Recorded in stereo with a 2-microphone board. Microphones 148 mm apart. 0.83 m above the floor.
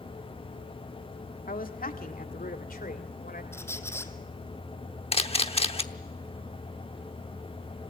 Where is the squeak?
15° left (ahead or behind), 1.2 m.